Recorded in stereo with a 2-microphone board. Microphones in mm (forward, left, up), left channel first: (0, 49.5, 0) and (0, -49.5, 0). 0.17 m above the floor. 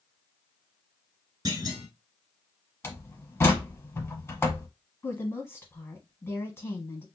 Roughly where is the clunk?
Right.